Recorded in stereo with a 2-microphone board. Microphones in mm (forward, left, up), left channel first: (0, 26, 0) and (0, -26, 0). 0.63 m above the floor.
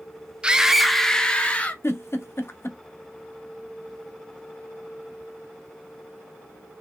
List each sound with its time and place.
0.4 s a scream: 20° right (ahead or behind), 0.5 m; by 1.7 s 30° left (ahead or behind), 0.8 m
1.8 s a giggle: 55° left (ahead or behind), 0.6 m